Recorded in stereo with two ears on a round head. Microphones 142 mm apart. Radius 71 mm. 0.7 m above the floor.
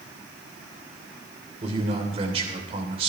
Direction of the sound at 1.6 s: 35° right (ahead or behind).